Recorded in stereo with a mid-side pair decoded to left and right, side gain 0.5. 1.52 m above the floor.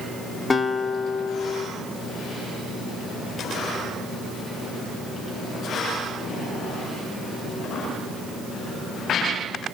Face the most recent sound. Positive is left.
turn(degrees=25)